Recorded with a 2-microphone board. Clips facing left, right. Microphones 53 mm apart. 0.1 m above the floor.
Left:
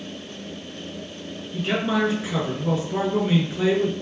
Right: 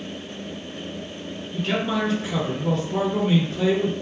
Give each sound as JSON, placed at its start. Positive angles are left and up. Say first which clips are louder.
{"t": 1.5, "sound": "a man speaking", "louder": "left 1 dB", "side_deg": 15, "distance_m": 1.1}